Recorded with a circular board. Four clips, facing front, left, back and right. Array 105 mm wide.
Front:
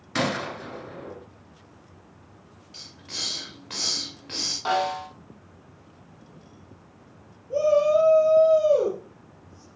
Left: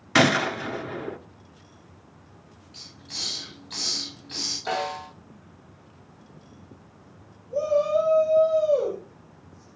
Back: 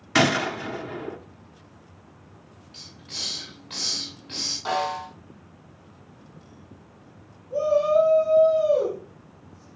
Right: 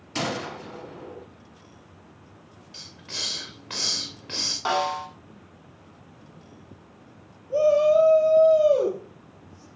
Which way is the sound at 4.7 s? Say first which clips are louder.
Right 4 dB, front 1 dB; 70° right.